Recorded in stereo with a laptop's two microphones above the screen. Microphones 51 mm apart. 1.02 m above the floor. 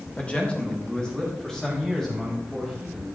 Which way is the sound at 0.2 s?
25° left (ahead or behind).